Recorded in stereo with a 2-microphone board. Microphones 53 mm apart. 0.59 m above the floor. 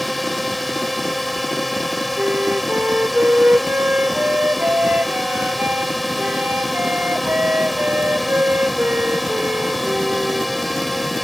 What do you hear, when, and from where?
0.0 s a drone: centre (ahead or behind)
2.2 s a flute: 35° right (ahead or behind)